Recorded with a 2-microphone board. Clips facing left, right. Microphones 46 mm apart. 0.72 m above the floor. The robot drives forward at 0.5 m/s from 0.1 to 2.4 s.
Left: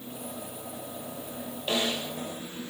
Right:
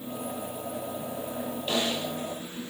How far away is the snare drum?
About 3 m.